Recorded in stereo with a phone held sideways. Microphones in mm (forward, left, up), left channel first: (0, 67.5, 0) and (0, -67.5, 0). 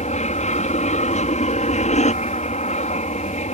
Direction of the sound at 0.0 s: 60° left (ahead or behind).